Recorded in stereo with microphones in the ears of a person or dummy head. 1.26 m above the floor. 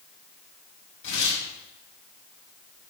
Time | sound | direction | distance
1.0 | tearing paper | 70° left (ahead or behind) | 5 m